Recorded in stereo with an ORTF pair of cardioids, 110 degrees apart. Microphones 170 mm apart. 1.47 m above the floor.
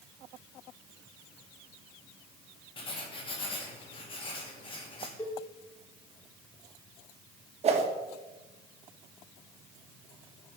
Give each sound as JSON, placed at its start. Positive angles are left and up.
{"t": 2.8, "sound": "writing", "azimuth_deg": 30, "distance_m": 2.0}
{"t": 5.2, "sound": "a cowbell", "azimuth_deg": 20, "distance_m": 1.9}
{"t": 7.6, "sound": "a whoosh", "azimuth_deg": -40, "distance_m": 1.6}